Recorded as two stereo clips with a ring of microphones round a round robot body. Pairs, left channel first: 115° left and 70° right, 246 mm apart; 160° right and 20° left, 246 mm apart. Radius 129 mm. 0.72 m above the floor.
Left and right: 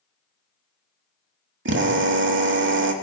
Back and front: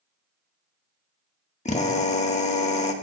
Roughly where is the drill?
Right.